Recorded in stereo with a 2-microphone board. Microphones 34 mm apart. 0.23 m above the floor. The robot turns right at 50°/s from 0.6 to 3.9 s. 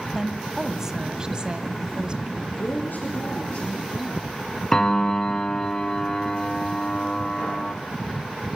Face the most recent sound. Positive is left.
turn(degrees=15)  # may be behind; listen again after turning